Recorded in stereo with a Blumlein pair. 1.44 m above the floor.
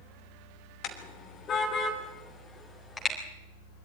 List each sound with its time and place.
0.8 s a car horn: 35° left, 3 m; by 3.1 s 15° left, 4 m